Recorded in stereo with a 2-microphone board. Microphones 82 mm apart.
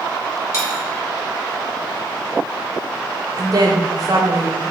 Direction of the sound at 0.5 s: 40° left (ahead or behind).